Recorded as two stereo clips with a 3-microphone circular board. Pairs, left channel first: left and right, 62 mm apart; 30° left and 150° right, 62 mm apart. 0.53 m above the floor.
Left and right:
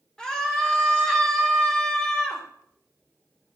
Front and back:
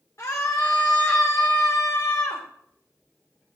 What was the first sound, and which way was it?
A scream, 15° left.